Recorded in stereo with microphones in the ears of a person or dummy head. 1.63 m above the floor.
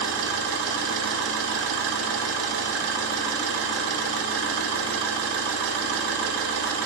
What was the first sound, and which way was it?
An engine running, 65° right (ahead or behind).